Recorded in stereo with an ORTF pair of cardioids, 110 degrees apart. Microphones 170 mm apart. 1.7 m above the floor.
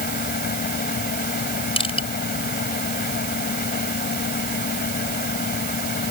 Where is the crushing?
30° left.